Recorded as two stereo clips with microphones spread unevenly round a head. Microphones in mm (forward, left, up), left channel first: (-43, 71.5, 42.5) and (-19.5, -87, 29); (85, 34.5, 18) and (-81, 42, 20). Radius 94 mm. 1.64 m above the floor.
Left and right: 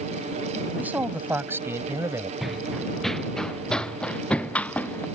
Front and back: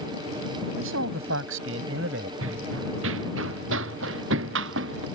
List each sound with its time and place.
0.8 s a man speaking: 165° right; by 2.3 s 155° right
2.4 s running footsteps: 170° right; by 5.1 s straight behind